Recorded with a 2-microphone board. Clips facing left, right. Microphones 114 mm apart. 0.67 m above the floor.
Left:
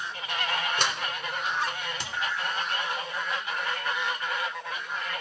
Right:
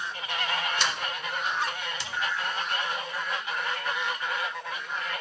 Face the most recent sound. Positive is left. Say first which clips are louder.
# left 1 dB
turn(degrees=50)  # may be behind; listen again after turning